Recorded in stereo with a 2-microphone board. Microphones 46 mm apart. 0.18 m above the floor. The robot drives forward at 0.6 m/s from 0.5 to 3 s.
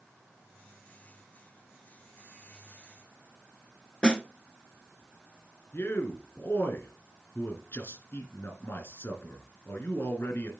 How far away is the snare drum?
About 0.7 m.